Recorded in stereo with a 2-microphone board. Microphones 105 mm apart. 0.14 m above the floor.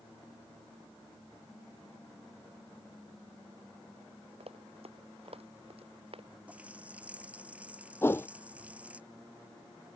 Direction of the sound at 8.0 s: 25° left (ahead or behind).